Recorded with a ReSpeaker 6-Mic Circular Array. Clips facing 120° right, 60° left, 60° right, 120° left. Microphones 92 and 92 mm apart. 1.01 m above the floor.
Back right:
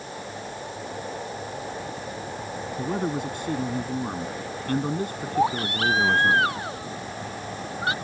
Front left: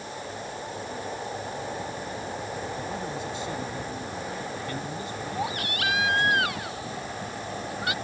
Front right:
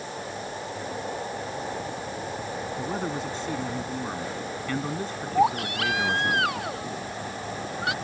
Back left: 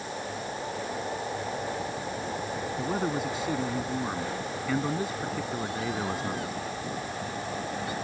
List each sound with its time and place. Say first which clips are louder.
2.8 s a man speaking: back right 5 dB, back left 2 dB; 155° right
5.3 s a baby crying: back right 9 dB, front right 9 dB; 60° right